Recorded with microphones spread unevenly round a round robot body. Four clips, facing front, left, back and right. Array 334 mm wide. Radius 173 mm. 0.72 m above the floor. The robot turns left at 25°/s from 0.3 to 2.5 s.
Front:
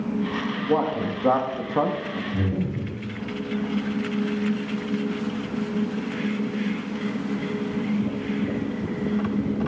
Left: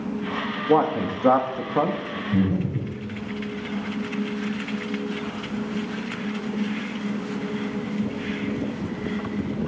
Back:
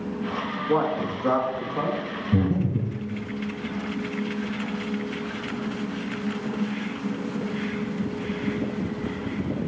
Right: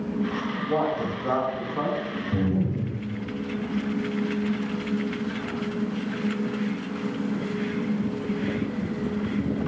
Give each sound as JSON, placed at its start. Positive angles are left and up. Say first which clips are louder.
{"t": 0.7, "sound": "a man speaking", "louder": "left 6 dB, even", "azimuth_deg": 90, "distance_m": 1.0}
{"t": 2.3, "sound": "breathing", "louder": "left 2 dB, back 5 dB", "azimuth_deg": 170, "distance_m": 2.5}